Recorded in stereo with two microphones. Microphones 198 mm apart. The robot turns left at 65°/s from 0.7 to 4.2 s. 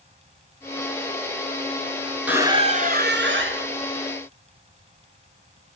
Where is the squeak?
10° right, 0.7 m; by 3.7 s 100° right, 0.7 m.